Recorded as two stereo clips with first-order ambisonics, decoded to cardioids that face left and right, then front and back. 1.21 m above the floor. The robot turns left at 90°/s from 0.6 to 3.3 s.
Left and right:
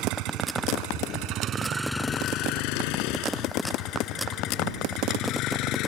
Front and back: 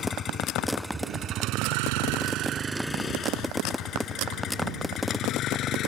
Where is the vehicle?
65° right; by 5.9 s 55° left.